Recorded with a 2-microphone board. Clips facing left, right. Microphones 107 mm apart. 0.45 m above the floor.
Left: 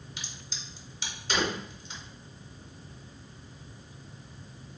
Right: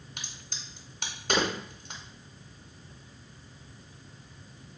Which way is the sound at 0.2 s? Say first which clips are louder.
Left 1 dB; 55° right (ahead or behind).